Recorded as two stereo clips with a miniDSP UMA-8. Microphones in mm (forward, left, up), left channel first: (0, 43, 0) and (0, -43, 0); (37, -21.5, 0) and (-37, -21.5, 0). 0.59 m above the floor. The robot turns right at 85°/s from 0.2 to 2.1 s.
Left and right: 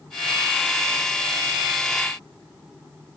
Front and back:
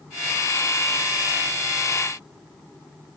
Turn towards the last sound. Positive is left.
No sound to turn to.